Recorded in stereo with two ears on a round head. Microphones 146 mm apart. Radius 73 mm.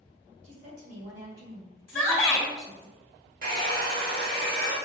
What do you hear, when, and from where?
0.4 s a woman speaking: 45° right (ahead or behind), 1.5 m; by 2.9 s 65° right (ahead or behind), 3 m
1.9 s a shout: 15° left (ahead or behind), 1.6 m
3.4 s a hair dryer: 60° right (ahead or behind), 1.0 m